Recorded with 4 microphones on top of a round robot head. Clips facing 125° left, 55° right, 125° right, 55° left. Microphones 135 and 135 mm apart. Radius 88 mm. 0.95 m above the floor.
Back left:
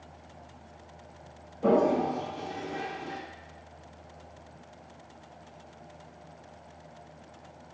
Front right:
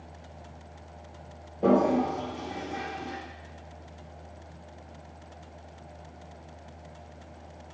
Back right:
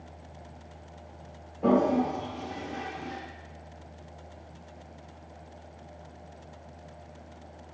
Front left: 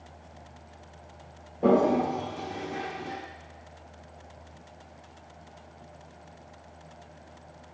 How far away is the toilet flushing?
About 1.1 m.